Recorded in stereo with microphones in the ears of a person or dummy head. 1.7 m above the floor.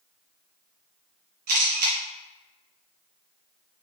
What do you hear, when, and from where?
1.5 s a camera shutter: 50° right (ahead or behind), 1.0 m